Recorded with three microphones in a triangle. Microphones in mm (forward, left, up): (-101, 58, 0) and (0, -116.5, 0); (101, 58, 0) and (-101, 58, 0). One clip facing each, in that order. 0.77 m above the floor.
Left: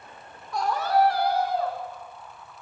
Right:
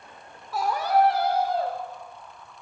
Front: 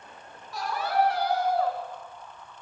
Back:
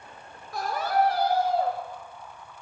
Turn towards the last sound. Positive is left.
turn(degrees=-115)